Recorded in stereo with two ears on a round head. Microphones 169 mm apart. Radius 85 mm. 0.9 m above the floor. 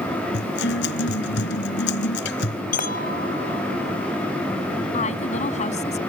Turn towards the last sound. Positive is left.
turn(degrees=40)  # may be behind; listen again after turning